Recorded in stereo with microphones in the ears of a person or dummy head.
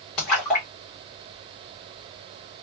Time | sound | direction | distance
0.2 | a splash | 15° left (ahead or behind) | 0.9 m